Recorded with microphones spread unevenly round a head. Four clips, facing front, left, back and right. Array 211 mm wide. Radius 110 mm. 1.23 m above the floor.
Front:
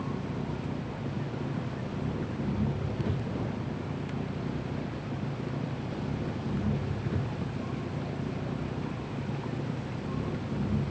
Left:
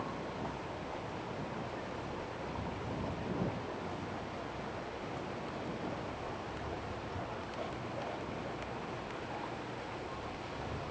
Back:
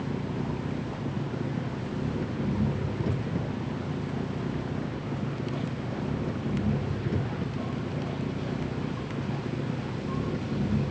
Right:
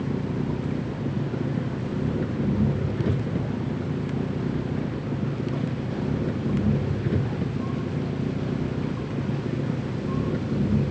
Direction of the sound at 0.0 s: 95° right.